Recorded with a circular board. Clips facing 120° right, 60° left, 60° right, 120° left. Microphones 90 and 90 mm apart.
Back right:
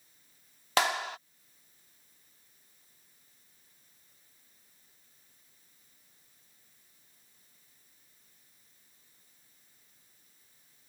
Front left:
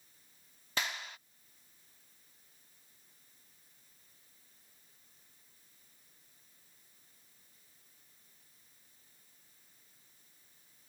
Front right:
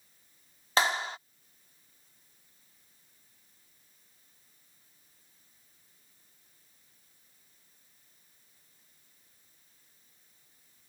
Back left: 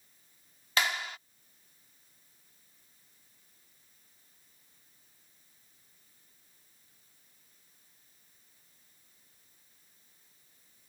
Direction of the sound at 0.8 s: 115° right.